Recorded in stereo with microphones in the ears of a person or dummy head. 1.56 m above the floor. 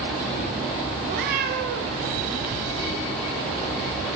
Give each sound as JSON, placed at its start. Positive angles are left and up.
{"t": 1.1, "sound": "a cat meowing", "side_deg": -55, "distance_m": 2.0}